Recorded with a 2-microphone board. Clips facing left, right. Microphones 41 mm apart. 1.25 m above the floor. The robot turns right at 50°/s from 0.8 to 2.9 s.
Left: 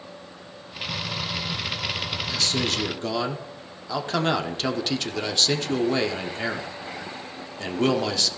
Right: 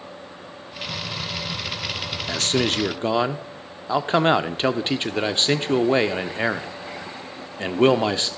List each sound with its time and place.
2.3 s a man speaking: 70° right, 0.7 m; by 8.3 s 40° right, 0.7 m